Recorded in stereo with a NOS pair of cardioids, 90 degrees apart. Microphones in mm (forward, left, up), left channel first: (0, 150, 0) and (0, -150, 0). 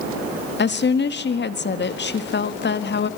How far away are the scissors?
No scissors in this recording.